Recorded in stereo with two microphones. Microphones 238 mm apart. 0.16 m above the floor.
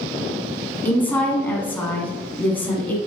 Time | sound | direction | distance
0.8 | a woman speaking | 5° left (ahead or behind) | 1.1 m